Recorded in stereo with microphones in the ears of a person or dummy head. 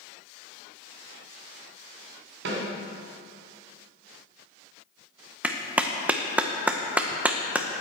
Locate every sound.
2.5 s a snare drum: 65° right (ahead or behind), 2.5 m
5.4 s a clap: 5° right (ahead or behind), 0.7 m